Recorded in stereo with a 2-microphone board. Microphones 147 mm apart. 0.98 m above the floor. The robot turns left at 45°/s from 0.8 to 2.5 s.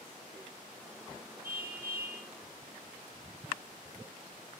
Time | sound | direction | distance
1.4 | a car horn | 75° right | 8 m